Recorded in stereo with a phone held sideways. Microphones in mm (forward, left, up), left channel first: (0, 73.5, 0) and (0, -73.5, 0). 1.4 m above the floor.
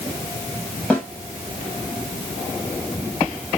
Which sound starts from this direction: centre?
A snare drum, at 0.9 s.